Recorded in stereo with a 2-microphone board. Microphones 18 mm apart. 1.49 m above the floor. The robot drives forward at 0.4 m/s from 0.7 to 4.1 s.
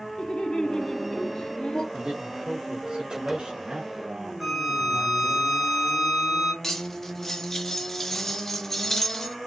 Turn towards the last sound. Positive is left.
turn(degrees=25)  # may be behind; listen again after turning